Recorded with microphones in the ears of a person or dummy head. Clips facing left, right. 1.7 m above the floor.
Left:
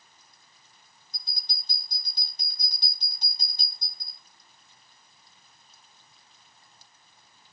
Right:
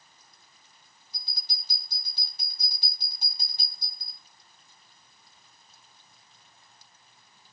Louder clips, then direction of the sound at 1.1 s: Even; 5° right (ahead or behind).